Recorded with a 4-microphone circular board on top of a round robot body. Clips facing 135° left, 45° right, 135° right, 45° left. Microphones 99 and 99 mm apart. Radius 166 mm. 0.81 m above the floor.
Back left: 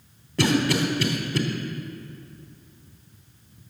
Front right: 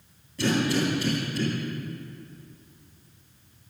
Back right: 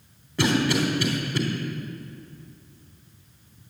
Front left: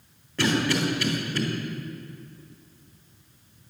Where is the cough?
145° left, 3.5 m.